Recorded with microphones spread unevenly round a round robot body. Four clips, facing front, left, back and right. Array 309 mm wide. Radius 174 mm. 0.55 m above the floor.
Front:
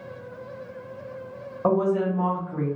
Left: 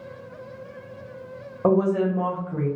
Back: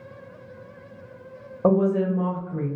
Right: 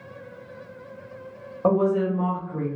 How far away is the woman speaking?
About 0.8 m.